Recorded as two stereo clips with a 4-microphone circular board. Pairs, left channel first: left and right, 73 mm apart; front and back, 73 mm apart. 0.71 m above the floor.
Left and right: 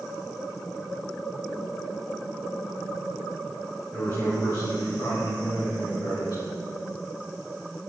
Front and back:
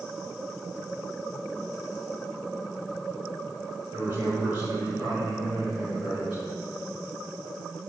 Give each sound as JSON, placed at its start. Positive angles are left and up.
{"t": 3.9, "sound": "a man speaking", "azimuth_deg": 125, "distance_m": 2.5}